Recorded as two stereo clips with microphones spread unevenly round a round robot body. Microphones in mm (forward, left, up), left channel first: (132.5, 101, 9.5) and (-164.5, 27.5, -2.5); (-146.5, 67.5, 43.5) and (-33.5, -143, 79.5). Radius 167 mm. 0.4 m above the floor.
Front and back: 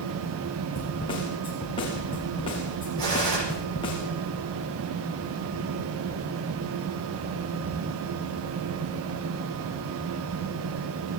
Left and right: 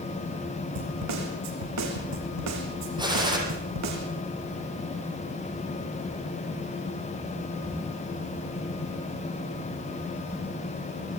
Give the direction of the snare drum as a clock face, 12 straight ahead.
2 o'clock.